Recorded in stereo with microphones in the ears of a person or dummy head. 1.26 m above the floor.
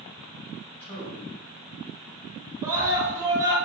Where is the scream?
15° right (ahead or behind), 1.3 m.